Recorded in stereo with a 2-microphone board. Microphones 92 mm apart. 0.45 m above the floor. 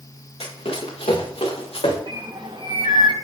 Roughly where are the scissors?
I don't hear scissors.